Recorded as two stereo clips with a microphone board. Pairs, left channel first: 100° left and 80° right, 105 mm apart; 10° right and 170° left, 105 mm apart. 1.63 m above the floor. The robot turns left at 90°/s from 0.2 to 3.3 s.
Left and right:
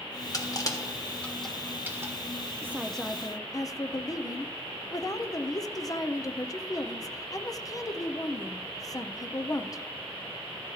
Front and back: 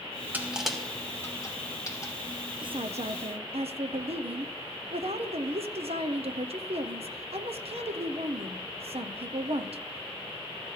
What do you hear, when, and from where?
0.3 s crushing: 110° left, 1.4 m; by 2.1 s 50° right, 1.4 m
2.6 s a woman speaking: 145° right, 0.7 m; by 9.8 s 155° left, 0.7 m